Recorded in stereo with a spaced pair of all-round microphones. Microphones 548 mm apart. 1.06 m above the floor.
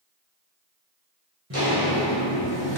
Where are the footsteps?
25° right (ahead or behind), 1.2 m; by 2.8 s 25° left (ahead or behind), 1.1 m.